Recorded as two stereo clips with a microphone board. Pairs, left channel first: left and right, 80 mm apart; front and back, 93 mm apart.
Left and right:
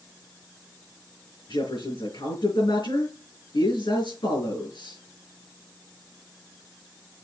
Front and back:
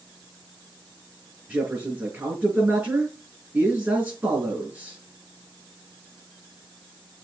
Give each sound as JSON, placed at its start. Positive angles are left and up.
{"t": 1.5, "sound": "a man speaking", "azimuth_deg": 110, "distance_m": 5.0}